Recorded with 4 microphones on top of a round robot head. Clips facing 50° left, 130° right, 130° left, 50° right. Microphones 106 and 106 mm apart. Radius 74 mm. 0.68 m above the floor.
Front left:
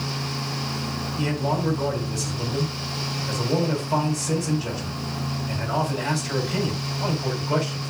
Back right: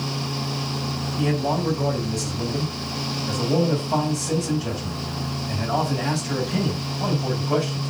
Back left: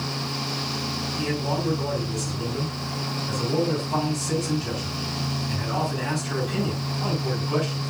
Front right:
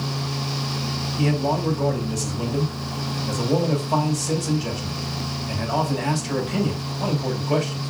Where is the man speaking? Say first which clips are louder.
Back right 2 dB, front right 5 dB; 50° right, 4 m.